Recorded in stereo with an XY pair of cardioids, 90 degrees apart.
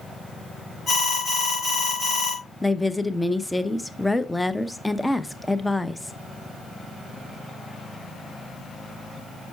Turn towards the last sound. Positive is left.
turn(degrees=10)